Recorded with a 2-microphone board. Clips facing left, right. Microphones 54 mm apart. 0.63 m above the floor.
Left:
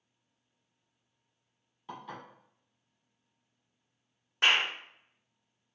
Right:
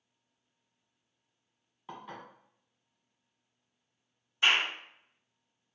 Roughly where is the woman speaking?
I don't hear a woman speaking.